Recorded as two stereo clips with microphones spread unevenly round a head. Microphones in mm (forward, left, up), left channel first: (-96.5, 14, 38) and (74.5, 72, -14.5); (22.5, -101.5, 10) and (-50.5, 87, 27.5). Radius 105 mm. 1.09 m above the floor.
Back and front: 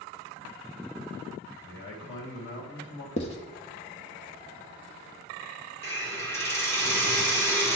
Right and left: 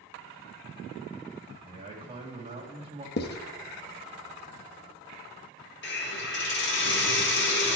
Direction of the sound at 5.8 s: 75° right.